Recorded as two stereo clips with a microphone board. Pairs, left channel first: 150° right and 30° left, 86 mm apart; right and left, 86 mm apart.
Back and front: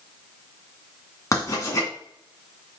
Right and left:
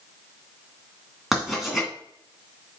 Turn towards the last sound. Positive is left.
turn(degrees=175)